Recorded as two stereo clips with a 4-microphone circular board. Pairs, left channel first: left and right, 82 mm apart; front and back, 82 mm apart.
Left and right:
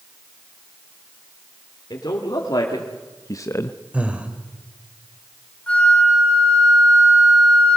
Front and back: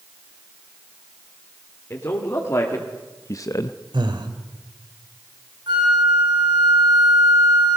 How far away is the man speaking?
About 3 m.